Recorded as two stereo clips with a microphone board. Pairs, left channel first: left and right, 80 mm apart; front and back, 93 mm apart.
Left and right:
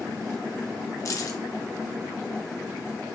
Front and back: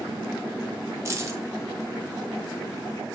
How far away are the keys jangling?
About 0.7 m.